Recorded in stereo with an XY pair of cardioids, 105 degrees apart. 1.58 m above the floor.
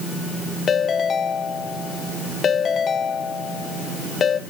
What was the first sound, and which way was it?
A ringtone, 45° left.